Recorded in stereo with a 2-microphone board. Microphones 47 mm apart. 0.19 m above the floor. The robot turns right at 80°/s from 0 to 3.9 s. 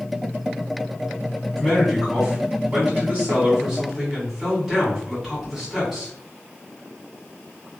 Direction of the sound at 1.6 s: 160° left.